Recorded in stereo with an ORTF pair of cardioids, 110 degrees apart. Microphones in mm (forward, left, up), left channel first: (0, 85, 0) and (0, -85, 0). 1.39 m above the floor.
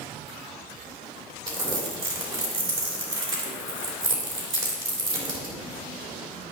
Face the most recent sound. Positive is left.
turn(degrees=-30)